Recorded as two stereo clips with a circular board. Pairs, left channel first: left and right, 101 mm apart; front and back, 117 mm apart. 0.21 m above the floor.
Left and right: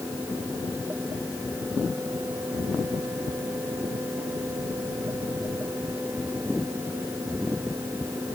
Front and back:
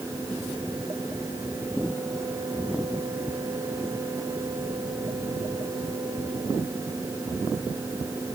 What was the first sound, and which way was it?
Only background noise.